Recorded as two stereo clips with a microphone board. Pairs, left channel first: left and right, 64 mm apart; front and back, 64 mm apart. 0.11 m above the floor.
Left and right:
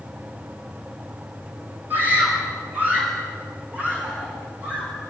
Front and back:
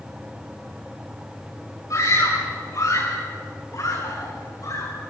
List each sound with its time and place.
1.9 s a scream: 30° right, 10 m; by 5.0 s 15° right, 7.5 m